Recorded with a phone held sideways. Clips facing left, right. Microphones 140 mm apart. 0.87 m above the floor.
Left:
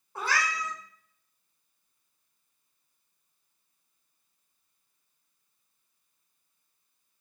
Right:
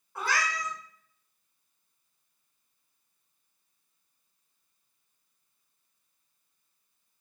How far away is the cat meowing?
About 1.7 m.